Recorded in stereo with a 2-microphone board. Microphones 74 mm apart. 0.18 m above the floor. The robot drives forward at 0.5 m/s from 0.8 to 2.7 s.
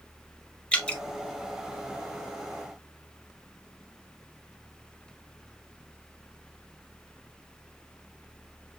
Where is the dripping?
15° left (ahead or behind), 1.5 m.